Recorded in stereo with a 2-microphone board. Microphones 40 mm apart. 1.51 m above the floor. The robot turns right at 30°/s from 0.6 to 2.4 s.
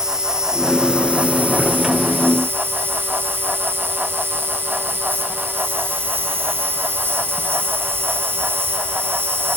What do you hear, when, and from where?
0.0 s an insect: 165° right, 1.7 m; by 9.6 s 110° right, 1.7 m